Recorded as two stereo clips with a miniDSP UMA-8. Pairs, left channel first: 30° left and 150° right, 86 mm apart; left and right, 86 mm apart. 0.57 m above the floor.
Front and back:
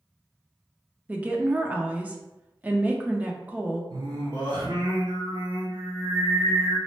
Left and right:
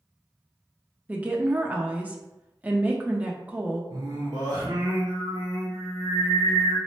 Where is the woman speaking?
115° right, 0.6 m.